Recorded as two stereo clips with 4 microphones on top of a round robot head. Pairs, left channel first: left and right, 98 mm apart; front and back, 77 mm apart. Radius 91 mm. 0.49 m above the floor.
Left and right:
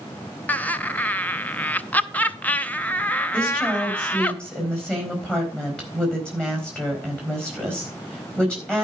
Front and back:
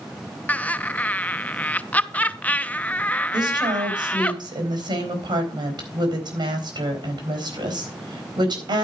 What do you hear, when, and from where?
0.5 s laughter: 40° left, 0.9 m
3.3 s a woman speaking: 170° left, 4 m